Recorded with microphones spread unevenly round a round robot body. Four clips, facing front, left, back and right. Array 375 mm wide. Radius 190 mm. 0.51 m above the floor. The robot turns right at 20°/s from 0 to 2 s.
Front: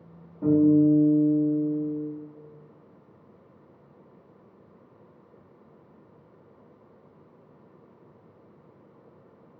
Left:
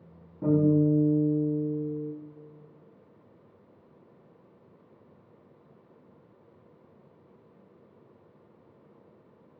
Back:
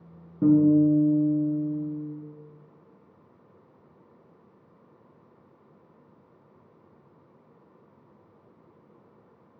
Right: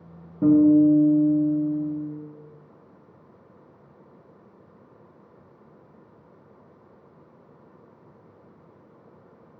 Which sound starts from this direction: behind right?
A guitar, at 0.4 s.